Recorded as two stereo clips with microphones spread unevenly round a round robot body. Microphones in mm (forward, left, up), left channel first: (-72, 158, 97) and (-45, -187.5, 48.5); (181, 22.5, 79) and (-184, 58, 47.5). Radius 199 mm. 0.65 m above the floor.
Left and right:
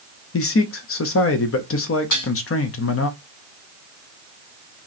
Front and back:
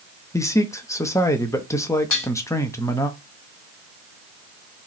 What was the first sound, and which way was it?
A man speaking, 80° left.